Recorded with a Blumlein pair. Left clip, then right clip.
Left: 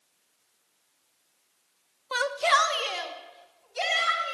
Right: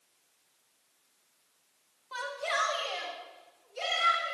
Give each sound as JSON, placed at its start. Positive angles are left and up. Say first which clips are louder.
{"t": 2.1, "sound": "a shout", "louder": "left 9 dB", "azimuth_deg": 55, "distance_m": 0.5}